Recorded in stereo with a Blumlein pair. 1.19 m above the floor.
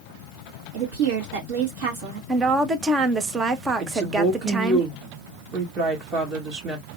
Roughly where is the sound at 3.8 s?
Ahead right.